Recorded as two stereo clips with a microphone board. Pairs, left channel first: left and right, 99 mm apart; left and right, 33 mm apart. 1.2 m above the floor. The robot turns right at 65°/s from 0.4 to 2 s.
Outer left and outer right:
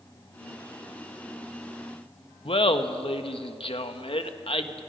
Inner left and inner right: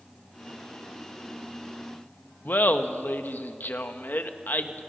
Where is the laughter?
70° left (ahead or behind), 1.4 m.